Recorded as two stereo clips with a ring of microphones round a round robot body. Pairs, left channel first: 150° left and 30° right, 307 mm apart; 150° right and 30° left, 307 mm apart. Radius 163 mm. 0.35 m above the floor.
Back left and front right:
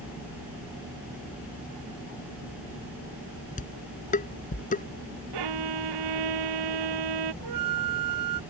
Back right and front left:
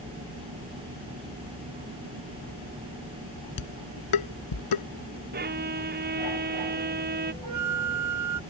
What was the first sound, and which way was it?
Dishes clattering, 145° right.